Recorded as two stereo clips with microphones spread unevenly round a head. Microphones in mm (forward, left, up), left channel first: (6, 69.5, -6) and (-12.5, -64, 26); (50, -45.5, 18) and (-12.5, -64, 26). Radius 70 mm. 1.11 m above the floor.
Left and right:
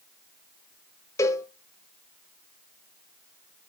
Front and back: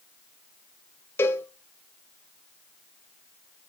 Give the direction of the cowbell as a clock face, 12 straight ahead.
12 o'clock.